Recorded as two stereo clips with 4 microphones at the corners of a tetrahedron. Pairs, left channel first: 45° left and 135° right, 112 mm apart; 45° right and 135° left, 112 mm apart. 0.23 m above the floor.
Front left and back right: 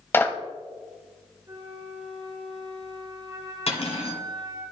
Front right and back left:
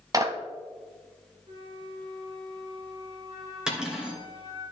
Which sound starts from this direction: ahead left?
Cutlery clinking, at 3.7 s.